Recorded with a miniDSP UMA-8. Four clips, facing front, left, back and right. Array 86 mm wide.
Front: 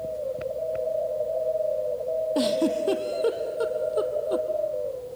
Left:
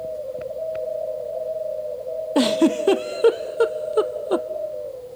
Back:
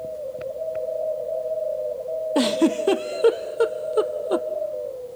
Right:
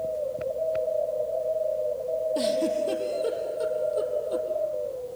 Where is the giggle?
120° left, 0.5 m.